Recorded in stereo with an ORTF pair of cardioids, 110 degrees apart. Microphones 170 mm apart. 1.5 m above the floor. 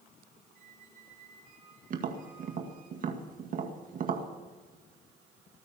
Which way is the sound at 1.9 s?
50° right.